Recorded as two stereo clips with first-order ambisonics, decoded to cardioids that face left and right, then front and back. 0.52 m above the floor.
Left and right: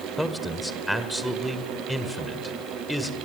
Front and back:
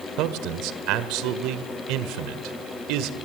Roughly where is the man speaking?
Behind.